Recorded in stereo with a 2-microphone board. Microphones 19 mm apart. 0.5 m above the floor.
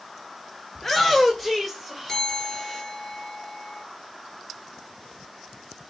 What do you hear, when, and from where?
0.8 s a shout: 15° left (ahead or behind), 1.8 m; by 2.8 s centre (ahead or behind), 3.5 m
2.1 s a bell: 25° left (ahead or behind), 6 m